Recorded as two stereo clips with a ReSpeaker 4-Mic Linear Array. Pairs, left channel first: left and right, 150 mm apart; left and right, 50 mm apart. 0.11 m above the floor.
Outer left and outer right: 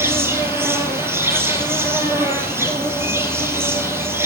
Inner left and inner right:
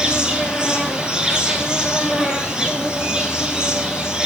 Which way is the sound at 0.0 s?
15° right (ahead or behind).